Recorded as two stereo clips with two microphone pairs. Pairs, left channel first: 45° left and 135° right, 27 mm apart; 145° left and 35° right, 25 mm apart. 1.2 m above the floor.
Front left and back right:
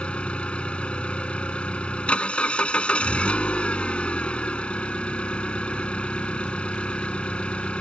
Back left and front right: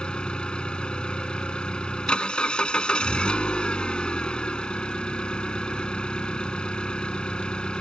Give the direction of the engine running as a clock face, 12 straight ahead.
9 o'clock.